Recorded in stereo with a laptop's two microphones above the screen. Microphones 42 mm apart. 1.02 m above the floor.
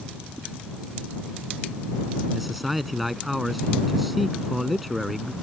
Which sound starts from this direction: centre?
A man speaking, at 2.3 s.